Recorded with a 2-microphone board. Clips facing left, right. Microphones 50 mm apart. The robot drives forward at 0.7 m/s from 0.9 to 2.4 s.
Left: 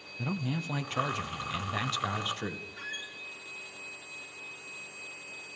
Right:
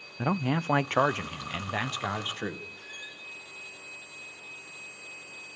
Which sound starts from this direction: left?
A squeak, at 2.8 s.